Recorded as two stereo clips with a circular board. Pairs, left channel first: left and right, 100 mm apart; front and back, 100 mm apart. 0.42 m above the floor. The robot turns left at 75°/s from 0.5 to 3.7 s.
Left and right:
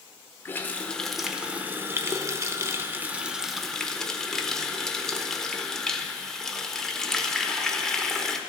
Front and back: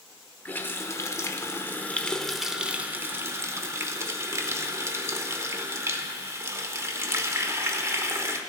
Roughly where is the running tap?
Ahead left.